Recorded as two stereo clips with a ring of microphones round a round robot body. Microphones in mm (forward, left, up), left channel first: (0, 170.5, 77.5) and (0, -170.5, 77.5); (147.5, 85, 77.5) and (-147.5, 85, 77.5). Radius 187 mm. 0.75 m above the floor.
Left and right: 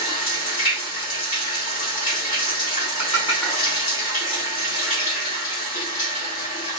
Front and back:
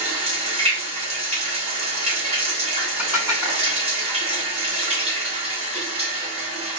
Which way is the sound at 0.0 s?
110° left.